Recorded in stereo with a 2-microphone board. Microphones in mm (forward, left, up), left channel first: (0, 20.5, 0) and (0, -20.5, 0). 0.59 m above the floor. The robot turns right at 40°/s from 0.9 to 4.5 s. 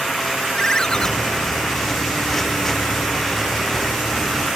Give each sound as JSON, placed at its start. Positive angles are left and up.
{"t": 0.5, "sound": "a ringtone", "side_deg": 15}